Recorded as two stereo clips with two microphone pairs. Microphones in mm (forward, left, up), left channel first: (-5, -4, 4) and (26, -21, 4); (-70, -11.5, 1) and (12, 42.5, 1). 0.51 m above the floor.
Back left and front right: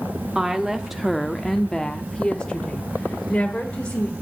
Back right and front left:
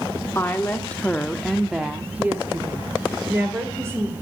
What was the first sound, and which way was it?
A woman speaking, 90° right.